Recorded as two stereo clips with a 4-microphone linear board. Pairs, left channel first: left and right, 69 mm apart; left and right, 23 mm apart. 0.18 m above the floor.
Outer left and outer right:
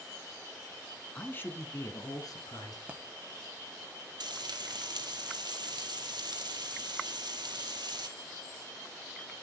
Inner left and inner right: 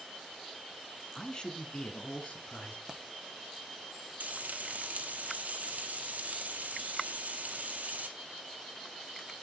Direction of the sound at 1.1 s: 20° left (ahead or behind).